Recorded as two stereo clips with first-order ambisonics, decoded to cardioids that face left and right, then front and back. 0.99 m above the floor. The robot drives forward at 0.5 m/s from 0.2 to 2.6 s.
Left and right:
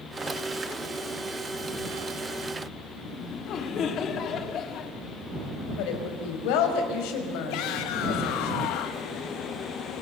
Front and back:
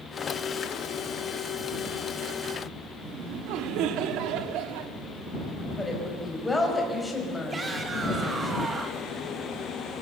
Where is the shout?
105° left, 1.0 m.